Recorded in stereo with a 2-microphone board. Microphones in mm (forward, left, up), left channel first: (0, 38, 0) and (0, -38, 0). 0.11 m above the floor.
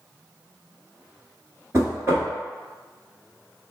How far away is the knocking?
About 1.1 m.